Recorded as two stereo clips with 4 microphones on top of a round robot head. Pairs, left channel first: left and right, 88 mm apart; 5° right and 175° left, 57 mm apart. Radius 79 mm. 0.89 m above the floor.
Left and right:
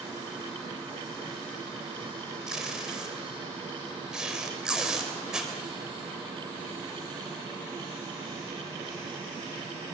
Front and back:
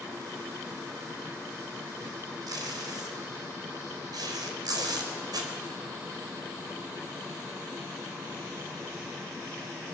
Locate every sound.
2.5 s tape being pulled: 175° right, 3.5 m